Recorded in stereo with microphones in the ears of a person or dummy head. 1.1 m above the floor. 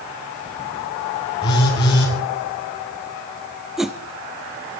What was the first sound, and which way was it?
A phone buzzing, 30° left (ahead or behind).